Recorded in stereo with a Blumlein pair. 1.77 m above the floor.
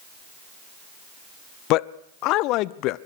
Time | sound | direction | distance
1.7 | a man speaking | 40° left | 0.9 m